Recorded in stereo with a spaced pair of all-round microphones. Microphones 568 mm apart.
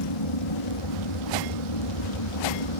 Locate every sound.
0.0 s an aircraft: 60° left (ahead or behind)